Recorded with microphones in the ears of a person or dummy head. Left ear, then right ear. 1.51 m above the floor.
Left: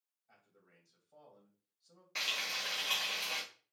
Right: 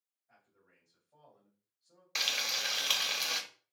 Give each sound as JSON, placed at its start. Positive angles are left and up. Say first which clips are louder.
{"t": 0.3, "sound": "a man speaking", "louder": "even", "side_deg": 65, "distance_m": 1.9}
{"t": 2.1, "sound": "frying", "louder": "right 4 dB", "side_deg": -40, "distance_m": 0.7}